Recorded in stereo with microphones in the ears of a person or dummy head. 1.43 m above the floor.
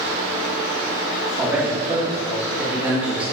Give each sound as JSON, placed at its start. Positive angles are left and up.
{"t": 1.4, "sound": "a man speaking", "side_deg": -5, "distance_m": 2.5}